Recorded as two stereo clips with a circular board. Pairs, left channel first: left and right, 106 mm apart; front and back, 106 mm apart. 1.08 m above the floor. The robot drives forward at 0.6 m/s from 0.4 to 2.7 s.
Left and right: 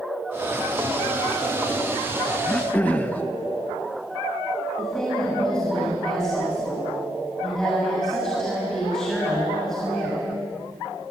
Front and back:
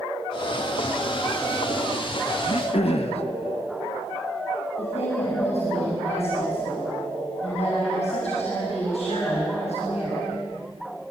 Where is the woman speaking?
5° left, 7 m.